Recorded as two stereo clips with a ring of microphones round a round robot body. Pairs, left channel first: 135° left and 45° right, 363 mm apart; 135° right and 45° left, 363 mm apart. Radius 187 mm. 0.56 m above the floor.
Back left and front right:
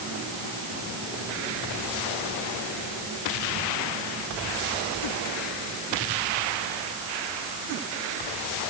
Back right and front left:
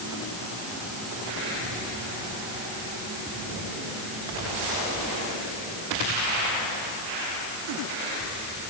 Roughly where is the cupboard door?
No cupboard door in this recording.